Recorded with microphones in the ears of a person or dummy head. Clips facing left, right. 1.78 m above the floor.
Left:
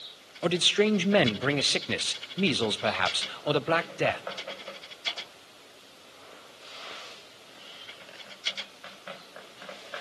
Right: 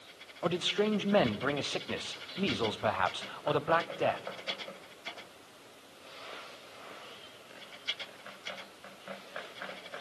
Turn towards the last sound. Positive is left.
turn(degrees=20)  # may be behind; listen again after turning